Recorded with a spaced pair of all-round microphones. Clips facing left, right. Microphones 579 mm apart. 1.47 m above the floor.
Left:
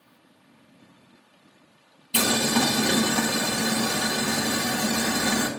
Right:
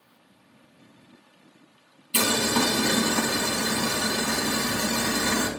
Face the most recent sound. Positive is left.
turn(degrees=15)  # may be behind; listen again after turning